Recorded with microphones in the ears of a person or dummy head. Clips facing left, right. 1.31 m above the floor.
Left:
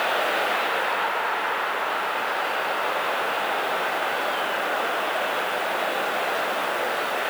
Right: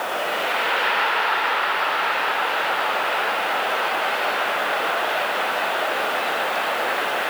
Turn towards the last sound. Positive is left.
No sound to turn to.